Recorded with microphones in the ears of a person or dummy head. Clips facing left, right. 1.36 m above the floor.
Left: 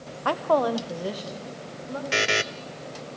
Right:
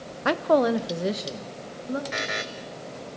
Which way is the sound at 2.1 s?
40° left (ahead or behind).